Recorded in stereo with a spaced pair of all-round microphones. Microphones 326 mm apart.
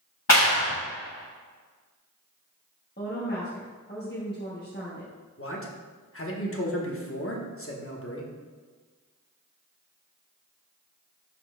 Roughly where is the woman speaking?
Left.